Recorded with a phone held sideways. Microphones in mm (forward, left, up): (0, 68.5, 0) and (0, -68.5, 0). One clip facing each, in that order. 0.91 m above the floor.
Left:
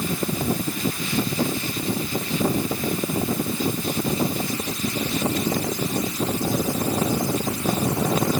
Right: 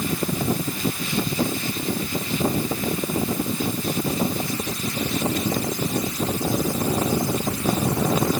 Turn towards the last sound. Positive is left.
No sound to turn to.